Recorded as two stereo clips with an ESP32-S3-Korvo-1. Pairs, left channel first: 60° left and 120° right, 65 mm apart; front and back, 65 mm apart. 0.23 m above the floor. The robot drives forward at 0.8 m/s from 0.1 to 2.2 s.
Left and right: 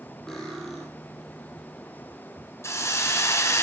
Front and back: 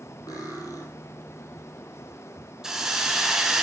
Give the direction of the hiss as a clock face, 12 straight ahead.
9 o'clock.